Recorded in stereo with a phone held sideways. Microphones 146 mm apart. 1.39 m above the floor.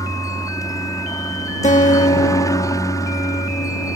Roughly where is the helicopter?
Left.